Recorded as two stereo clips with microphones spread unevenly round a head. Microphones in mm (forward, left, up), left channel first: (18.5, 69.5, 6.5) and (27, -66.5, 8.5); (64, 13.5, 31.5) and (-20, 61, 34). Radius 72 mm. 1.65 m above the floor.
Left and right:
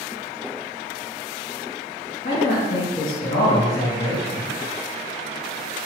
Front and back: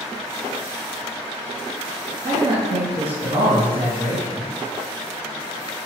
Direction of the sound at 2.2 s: 150° left.